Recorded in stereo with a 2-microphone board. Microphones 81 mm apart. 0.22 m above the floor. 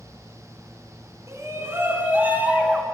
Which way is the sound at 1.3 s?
40° right (ahead or behind).